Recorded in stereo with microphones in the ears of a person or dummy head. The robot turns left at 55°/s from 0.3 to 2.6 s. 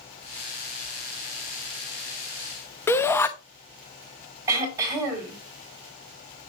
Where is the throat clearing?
20° right (ahead or behind), 5 m.